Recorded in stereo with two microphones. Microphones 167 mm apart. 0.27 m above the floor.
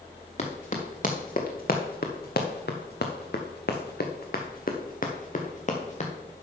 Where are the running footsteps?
50° left (ahead or behind), 2 m; by 6.1 s 45° left (ahead or behind), 2 m.